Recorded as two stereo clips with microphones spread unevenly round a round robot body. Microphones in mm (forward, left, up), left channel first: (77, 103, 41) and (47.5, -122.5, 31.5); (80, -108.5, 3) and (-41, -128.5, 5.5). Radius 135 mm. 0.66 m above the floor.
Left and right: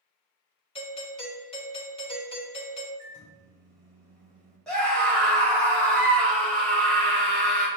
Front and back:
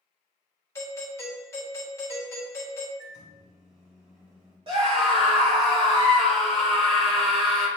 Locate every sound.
0.8 s a doorbell: 45° left, 1.2 m
3.0 s a microwave: 170° left, 1.6 m
4.7 s a scream: 170° left, 1.4 m